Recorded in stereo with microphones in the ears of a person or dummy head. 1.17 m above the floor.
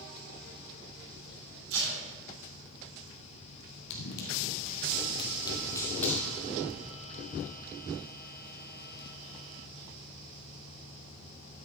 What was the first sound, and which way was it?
Tape being pulled, 75° right (ahead or behind).